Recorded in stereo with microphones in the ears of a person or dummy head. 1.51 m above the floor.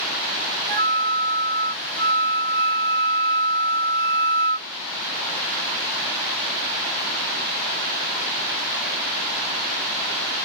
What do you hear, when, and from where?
0.7 s a flute: 65° right (ahead or behind)